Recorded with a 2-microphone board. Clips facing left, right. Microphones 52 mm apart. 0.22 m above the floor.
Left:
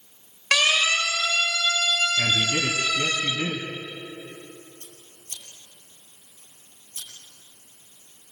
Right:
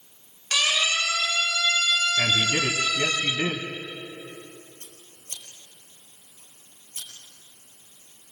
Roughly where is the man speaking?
Right.